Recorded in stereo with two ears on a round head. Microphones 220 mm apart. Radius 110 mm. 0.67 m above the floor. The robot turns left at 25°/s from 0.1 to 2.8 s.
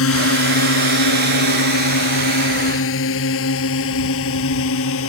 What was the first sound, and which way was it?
A drone, 60° left (ahead or behind).